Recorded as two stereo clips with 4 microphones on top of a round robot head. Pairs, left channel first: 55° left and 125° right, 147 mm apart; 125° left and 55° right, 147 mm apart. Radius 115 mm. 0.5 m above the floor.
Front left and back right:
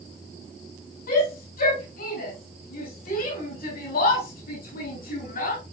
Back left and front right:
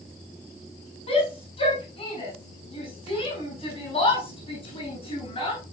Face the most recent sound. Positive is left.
turn(degrees=70)